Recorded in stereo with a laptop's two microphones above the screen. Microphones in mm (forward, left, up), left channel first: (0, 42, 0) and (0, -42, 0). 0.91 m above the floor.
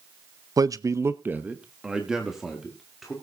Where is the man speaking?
45° right (ahead or behind), 0.6 m; by 3.1 s centre (ahead or behind), 2 m.